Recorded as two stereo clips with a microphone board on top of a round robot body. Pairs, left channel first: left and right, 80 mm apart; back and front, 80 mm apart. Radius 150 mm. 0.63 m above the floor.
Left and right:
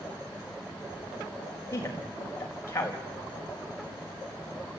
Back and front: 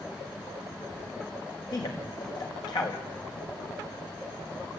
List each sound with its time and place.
1.7 s a man speaking: 150° left, 4.5 m